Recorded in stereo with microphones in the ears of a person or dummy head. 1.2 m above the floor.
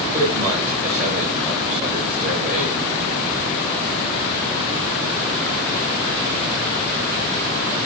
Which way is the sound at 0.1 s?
50° right (ahead or behind).